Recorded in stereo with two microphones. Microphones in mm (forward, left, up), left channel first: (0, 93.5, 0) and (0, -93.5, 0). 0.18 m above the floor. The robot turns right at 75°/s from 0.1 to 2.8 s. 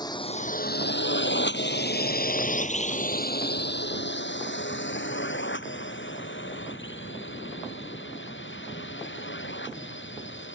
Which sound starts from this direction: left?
A drone, at 0.0 s.